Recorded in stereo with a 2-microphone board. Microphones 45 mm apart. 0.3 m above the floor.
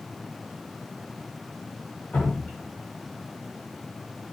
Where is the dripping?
40° left (ahead or behind), 0.9 m.